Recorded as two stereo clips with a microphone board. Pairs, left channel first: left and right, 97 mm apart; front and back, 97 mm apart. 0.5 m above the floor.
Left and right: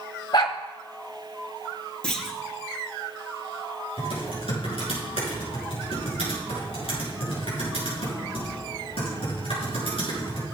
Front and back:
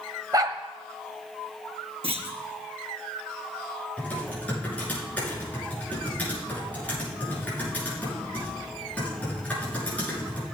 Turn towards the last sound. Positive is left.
turn(degrees=75)